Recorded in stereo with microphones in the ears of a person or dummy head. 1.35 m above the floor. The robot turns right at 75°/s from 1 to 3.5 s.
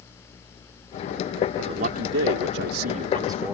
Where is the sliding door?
No sliding door in this recording.